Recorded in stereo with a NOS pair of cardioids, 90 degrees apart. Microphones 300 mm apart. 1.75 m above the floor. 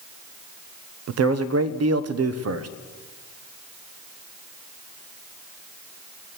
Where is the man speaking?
55° right, 1.0 m.